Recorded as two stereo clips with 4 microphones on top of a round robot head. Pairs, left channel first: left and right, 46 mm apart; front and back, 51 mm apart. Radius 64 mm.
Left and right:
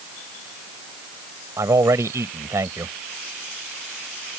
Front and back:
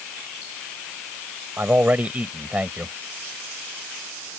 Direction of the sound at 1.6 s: 115° right.